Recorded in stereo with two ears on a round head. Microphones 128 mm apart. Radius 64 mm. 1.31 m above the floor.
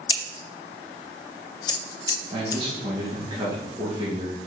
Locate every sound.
0.1 s scissors: 25° left (ahead or behind), 0.5 m
2.3 s a man speaking: 35° right (ahead or behind), 2 m